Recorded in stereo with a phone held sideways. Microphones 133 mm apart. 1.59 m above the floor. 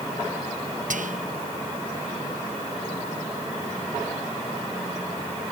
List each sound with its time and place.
0.9 s whispering: 75° right (ahead or behind)